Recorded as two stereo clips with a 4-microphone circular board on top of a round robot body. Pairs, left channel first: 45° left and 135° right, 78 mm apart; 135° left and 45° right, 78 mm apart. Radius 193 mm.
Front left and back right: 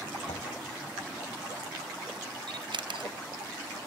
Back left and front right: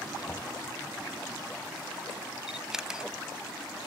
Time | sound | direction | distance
0.3 | knocking | 65° left | ?
2.5 | a camera shutter | 125° right | ?